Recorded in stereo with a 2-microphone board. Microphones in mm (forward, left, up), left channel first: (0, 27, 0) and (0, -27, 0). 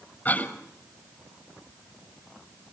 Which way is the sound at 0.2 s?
35° left (ahead or behind).